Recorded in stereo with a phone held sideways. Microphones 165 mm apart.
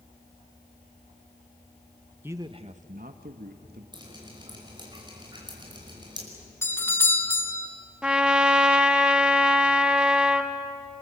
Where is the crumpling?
No crumpling in this recording.